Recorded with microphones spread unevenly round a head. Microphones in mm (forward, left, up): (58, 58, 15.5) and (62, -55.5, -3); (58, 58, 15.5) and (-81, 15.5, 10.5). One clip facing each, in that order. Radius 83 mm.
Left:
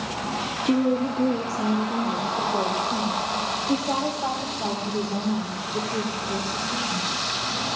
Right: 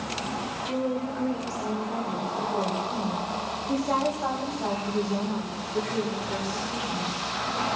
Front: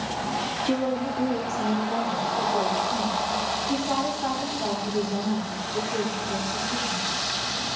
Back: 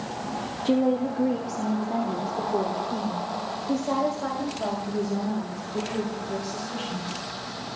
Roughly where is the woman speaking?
Behind left.